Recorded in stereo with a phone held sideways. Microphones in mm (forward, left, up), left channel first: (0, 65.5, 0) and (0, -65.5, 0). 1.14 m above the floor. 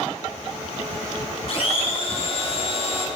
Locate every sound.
1.5 s a blender: 50° left (ahead or behind), 2 m